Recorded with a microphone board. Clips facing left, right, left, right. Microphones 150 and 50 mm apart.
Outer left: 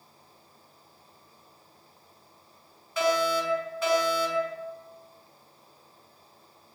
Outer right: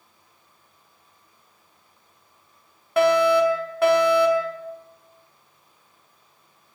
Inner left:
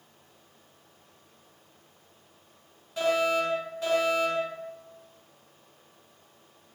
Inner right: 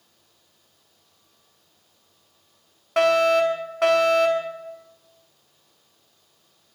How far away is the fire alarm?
About 5 m.